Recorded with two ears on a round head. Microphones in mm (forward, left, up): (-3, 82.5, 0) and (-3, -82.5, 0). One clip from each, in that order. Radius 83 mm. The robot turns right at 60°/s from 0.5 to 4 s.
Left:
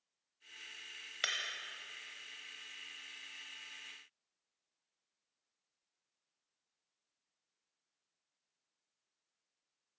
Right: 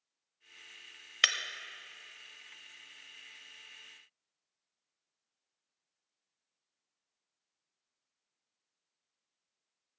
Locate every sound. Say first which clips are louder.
1.2 s breaking glass: right 9 dB; 45° right (ahead or behind), 1.0 m; by 1.4 s 40° right (ahead or behind), 1.0 m